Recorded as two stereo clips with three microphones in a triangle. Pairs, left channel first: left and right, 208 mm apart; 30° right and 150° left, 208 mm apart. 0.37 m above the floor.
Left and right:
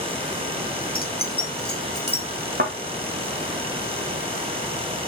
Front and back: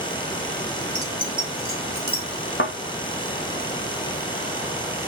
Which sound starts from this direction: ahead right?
A thud, at 2.6 s.